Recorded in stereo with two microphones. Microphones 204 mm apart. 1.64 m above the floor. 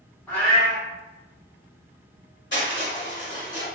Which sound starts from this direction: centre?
A cat meowing, at 0.3 s.